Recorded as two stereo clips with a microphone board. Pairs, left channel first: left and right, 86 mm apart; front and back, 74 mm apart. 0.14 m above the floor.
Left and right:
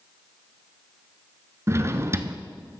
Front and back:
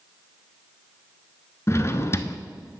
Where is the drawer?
45° right, 0.6 m.